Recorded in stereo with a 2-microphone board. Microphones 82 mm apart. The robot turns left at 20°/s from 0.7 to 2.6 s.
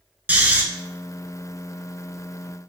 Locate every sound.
0.3 s snoring: 20° right (ahead or behind), 0.6 m